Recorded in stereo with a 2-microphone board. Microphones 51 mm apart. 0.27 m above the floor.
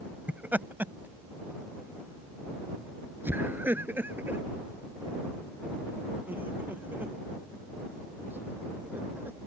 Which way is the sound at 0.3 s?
35° right (ahead or behind).